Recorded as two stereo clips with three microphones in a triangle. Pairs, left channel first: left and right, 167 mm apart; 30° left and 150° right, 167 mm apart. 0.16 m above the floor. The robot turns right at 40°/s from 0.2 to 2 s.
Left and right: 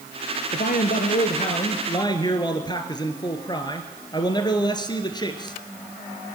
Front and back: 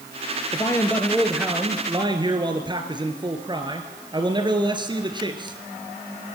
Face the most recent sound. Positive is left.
turn(degrees=150)